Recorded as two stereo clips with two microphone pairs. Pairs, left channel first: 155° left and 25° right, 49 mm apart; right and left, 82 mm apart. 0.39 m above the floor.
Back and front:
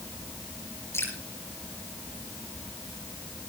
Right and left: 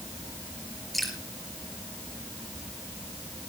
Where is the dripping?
Straight behind, 4 m.